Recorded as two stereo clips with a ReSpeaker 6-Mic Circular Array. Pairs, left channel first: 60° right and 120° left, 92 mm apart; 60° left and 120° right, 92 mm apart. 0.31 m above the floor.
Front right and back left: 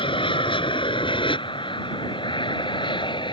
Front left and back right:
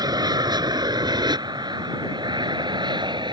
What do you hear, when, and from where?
0.0 s an aircraft: 80° right; by 3.3 s 90° right